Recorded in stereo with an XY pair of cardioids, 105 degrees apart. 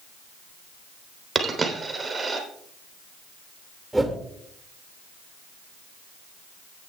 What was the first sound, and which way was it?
A dropped coin, 30° right.